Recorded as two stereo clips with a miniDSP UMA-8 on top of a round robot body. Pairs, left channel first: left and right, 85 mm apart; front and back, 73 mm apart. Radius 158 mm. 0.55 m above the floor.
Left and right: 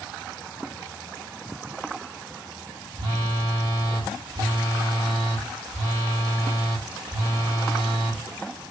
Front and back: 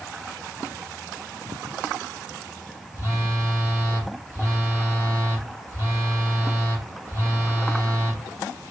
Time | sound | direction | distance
3.0 | a phone buzzing | 60° right | 1.8 m